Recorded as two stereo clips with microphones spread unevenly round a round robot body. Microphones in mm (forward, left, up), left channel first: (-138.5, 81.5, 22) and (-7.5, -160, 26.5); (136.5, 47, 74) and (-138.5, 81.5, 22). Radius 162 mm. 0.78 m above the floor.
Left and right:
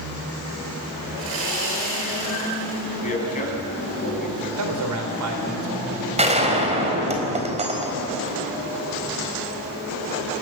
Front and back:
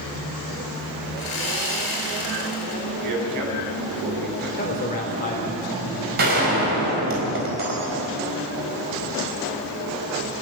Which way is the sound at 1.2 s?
20° right.